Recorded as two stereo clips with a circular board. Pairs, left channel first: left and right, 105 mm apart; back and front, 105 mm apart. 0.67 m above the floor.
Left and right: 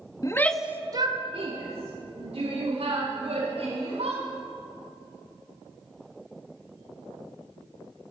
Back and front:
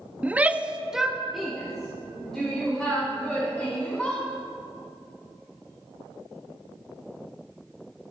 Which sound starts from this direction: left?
A shout, at 0.2 s.